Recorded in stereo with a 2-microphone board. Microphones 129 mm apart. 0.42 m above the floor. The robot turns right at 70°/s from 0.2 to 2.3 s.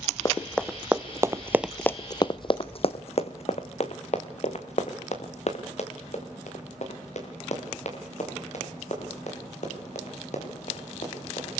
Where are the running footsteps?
30° left (ahead or behind), 1.3 m; by 11.5 s 60° left (ahead or behind), 8.5 m.